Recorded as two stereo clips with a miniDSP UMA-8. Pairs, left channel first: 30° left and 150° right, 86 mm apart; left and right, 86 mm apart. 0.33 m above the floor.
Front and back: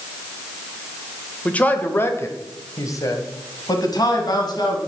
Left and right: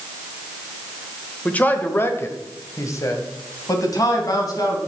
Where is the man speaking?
60° left, 1.0 m; by 4.8 s 55° left, 2.5 m.